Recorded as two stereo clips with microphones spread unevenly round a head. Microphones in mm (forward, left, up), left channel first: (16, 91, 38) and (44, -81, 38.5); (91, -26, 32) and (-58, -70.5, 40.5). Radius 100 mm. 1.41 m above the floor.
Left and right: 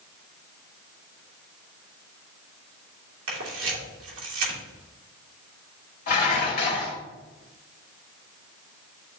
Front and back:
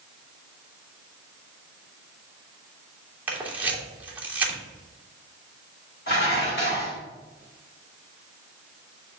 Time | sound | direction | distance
3.3 | a camera shutter | 85° right | 3 m
6.1 | dishes clattering | 65° left | 2.5 m